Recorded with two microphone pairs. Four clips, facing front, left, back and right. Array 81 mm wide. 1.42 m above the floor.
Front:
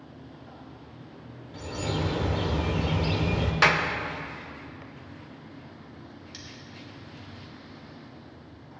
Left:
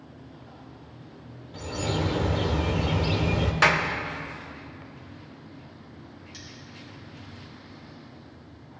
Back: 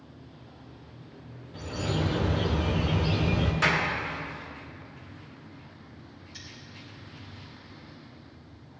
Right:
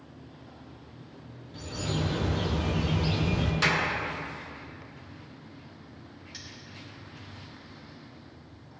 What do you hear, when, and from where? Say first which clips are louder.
1.5 s a bird: left 4 dB, even; 65° left, 1.3 m
3.6 s a clap: left 6 dB, front 4 dB; 50° left, 0.9 m
6.3 s cutlery clinking: left 2 dB, front 2 dB; 50° right, 2.5 m